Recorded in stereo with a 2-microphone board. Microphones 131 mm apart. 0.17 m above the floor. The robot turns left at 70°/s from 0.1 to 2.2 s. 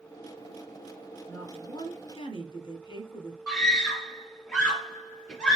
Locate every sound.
1.3 s a woman speaking: 155° left, 1.8 m; by 3.4 s 90° left, 1.8 m
3.5 s a scream: centre (ahead or behind), 2.5 m